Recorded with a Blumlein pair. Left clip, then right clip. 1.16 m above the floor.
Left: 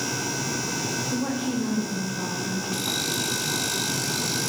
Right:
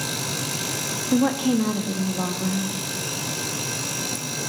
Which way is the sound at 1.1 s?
25° right.